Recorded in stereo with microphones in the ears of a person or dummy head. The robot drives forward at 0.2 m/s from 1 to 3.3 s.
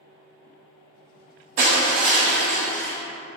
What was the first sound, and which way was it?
Crushing, 35° right (ahead or behind).